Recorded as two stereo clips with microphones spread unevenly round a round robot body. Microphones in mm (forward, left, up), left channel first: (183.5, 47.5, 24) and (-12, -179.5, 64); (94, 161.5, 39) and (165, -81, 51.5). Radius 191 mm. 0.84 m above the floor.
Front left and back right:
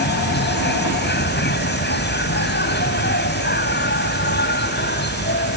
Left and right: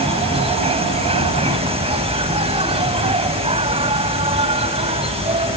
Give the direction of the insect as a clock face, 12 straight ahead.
12 o'clock.